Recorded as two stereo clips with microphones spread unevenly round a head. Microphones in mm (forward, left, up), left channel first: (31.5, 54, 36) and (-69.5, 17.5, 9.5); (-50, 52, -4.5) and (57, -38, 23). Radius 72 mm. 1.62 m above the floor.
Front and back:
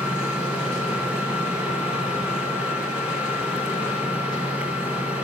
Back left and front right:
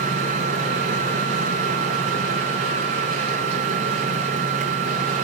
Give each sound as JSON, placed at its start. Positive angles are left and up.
{"t": 0.0, "sound": "a machine running", "azimuth_deg": -75, "distance_m": 4.5}